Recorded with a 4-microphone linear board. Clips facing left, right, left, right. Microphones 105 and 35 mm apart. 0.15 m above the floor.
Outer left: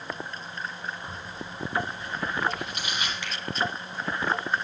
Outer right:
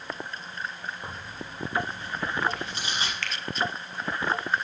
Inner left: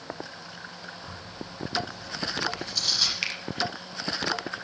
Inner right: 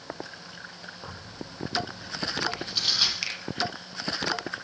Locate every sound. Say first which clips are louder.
1.0 s tearing paper: outer left 1 dB, inner left 1 dB; 30° right (ahead or behind), 5 m
3.2 s a finger snap: even, inner left 2 dB; 15° left (ahead or behind), 3 m